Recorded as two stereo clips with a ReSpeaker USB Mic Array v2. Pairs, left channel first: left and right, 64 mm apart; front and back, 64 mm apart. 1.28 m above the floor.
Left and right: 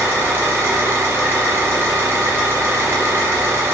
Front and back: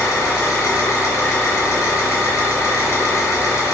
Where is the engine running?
40° right, 1.2 m.